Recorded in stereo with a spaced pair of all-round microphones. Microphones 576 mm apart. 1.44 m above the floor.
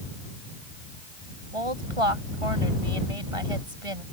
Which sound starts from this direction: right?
A woman speaking, at 1.5 s.